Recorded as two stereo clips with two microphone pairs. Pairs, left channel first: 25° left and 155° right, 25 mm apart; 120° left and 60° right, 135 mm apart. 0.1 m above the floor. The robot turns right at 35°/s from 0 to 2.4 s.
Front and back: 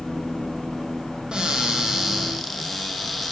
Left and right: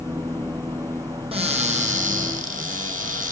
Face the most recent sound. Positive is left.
turn(degrees=-65)